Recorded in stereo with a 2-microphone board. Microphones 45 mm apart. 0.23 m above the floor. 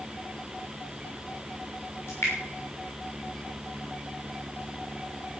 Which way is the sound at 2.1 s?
65° left (ahead or behind).